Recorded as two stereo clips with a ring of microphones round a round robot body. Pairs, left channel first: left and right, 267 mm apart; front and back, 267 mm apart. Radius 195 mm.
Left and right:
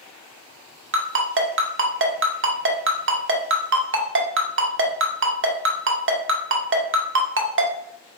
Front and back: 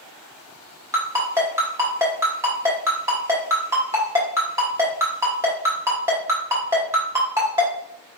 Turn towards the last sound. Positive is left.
turn(degrees=-105)